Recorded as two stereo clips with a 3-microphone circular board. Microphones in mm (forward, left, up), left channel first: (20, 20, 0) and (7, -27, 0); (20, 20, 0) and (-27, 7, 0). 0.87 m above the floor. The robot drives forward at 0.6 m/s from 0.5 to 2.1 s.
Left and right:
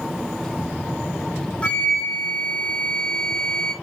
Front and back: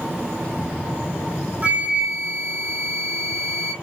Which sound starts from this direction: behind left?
A flute, at 1.6 s.